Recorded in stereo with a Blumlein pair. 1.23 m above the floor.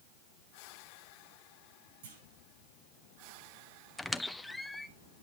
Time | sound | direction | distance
2.0 | a clunk | 55° right | 7 m
4.0 | a squeak | 5° left | 0.6 m